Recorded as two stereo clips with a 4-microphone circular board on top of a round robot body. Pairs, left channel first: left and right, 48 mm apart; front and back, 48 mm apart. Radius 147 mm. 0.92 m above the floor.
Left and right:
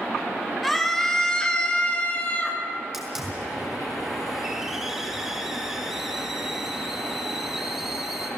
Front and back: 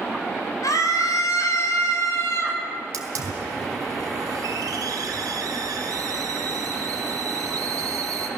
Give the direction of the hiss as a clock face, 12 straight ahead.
6 o'clock.